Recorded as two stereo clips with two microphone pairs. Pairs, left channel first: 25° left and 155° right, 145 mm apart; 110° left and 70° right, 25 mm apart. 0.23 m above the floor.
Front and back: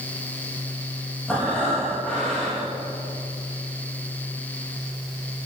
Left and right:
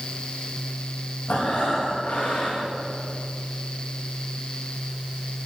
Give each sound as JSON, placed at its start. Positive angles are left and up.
{"t": 1.3, "sound": "breathing", "azimuth_deg": 110, "distance_m": 5.5}